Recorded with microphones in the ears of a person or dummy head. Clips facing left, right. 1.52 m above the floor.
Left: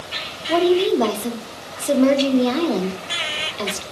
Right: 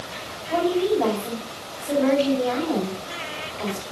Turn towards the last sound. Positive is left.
turn(degrees=60)  # may be behind; listen again after turning